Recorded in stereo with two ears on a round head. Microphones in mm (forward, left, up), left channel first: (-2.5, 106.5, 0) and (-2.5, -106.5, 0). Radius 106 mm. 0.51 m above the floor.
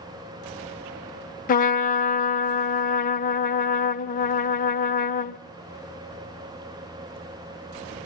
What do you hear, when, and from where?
1.5 s a trumpet: 35° left (ahead or behind), 0.6 m